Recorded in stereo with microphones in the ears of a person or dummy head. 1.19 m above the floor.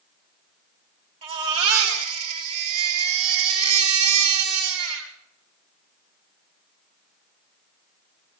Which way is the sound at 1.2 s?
35° right (ahead or behind).